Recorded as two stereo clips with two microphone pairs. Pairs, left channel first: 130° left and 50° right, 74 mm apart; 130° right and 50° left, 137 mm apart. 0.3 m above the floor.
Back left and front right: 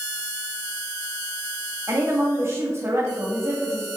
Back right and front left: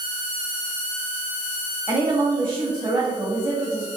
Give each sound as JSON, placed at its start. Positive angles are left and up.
{"t": 1.9, "sound": "a woman speaking", "azimuth_deg": -15, "distance_m": 1.5}